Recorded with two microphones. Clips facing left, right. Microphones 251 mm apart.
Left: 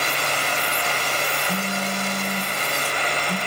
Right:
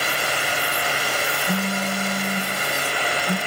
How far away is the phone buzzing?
About 7 m.